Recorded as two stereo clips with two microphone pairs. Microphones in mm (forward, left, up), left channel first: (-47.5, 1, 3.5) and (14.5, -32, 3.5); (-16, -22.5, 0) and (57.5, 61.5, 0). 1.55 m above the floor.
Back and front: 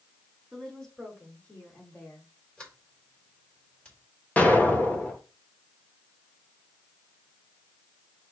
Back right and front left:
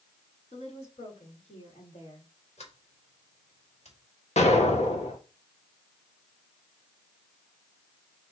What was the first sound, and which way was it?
A woman speaking, 130° right.